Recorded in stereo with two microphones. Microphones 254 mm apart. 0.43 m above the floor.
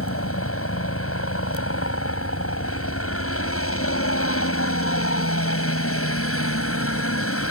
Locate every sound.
0.0 s a helicopter: 60° left (ahead or behind)